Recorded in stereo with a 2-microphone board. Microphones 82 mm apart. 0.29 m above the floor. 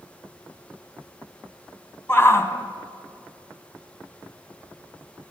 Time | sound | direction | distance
2.1 | a shout | 30° left (ahead or behind) | 2.5 m